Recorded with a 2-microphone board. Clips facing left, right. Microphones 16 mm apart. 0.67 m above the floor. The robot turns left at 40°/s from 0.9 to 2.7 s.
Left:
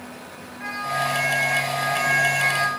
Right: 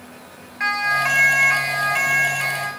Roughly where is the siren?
Right.